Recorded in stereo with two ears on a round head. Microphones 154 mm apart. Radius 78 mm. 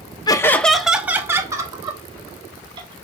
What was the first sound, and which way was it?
Laughter, 25° left (ahead or behind).